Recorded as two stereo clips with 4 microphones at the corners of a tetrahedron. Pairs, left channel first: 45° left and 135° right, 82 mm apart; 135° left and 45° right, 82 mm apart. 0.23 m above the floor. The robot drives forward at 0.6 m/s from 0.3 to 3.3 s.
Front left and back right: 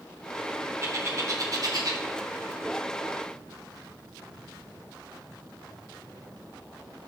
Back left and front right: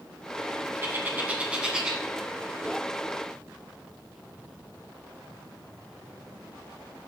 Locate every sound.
0.8 s a bird: 95° right, 1.6 m; by 2.0 s 125° right, 1.8 m